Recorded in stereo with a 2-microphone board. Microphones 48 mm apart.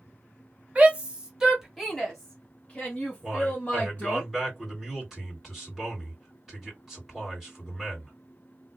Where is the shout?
30° right (ahead or behind), 1.0 m; by 4.2 s 35° left (ahead or behind), 1.8 m.